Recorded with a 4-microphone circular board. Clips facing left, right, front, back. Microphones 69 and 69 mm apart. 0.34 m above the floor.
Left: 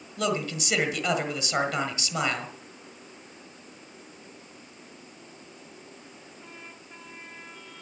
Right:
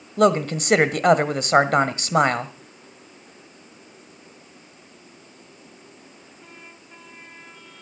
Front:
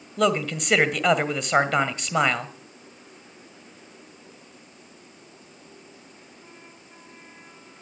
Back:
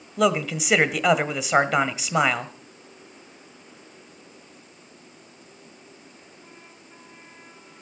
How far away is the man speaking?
About 1.6 m.